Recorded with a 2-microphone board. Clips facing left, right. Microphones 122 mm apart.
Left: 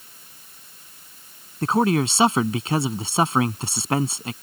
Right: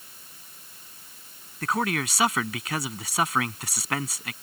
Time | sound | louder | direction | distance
1.6 | a man speaking | left 7 dB | 30° left (ahead or behind) | ?